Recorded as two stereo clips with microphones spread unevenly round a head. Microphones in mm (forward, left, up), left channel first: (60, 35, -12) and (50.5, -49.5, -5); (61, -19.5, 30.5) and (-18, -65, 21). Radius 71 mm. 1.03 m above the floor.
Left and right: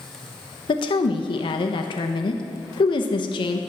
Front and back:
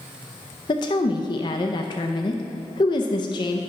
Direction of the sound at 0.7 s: 75° left.